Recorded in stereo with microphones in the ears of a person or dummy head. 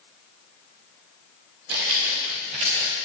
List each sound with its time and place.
1.7 s footsteps: 45° right (ahead or behind), 2 m; by 2.9 s 5° right (ahead or behind), 1.3 m